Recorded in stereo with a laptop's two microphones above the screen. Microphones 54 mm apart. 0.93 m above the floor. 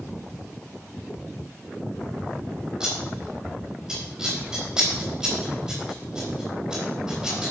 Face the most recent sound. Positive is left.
turn(degrees=-15)  # may be behind; listen again after turning